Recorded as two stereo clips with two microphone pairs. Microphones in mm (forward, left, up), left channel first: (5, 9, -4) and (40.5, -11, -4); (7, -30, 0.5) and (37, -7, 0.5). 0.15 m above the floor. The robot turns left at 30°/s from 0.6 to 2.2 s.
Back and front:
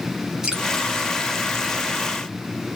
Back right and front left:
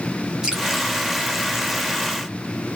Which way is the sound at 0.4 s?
Straight ahead.